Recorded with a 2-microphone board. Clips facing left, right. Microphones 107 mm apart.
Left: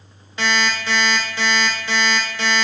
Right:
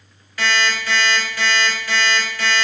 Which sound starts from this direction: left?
An alarm clock, at 0.4 s.